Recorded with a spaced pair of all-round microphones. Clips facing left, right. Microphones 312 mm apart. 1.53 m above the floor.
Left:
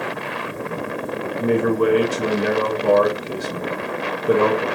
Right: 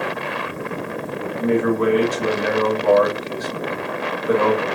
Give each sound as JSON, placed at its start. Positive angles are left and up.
{"t": 1.4, "sound": "a man speaking", "side_deg": 35, "distance_m": 1.1}